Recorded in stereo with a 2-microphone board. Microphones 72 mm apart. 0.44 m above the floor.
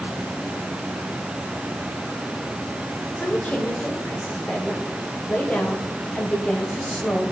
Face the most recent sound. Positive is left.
turn(degrees=15)  # may be behind; listen again after turning